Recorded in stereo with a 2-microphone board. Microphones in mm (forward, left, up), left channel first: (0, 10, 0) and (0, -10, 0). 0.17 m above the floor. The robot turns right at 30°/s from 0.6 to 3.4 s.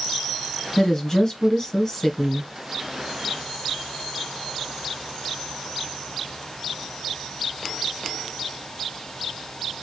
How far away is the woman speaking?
About 1.3 m.